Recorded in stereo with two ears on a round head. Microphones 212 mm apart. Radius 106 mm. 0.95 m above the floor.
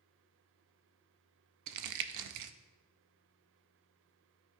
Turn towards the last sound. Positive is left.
turn(degrees=-80)